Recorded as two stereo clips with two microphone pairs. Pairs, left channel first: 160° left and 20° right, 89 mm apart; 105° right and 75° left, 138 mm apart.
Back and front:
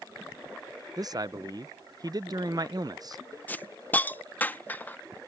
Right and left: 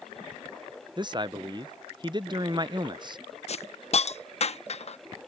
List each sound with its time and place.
1.0 s a man speaking: 20° left
3.5 s a hiss: 135° right